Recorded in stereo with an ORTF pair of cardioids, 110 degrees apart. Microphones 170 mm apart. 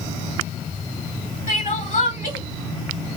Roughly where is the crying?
Ahead left.